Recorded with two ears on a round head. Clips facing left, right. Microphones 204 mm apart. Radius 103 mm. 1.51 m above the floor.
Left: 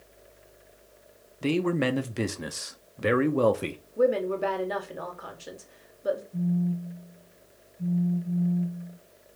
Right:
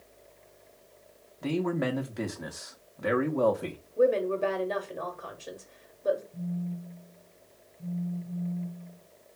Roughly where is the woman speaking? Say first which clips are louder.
Even; centre.